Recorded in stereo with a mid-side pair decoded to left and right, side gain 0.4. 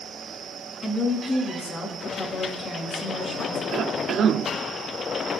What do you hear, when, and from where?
0.8 s a woman speaking: 45° left, 8 m
3.7 s a cough: 65° right, 0.8 m